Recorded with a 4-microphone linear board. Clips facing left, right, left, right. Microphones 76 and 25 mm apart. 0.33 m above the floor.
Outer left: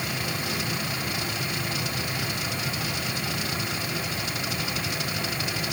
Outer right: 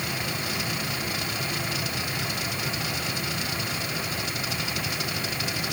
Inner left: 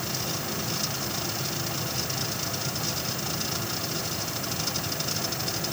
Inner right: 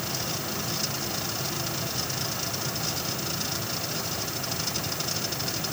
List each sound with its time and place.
Only background noise.